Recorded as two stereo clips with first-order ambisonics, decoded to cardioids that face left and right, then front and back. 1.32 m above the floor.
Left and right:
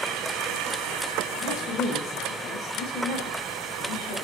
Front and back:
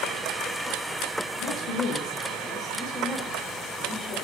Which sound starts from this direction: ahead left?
A woman speaking, at 1.4 s.